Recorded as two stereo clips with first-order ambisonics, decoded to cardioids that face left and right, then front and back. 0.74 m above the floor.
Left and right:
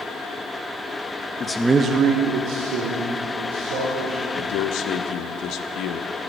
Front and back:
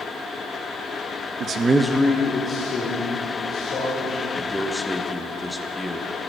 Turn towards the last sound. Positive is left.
turn(degrees=90)